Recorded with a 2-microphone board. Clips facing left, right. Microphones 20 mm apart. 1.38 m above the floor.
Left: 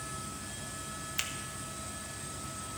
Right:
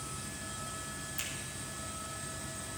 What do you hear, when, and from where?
1.2 s a finger snap: 40° left (ahead or behind), 0.9 m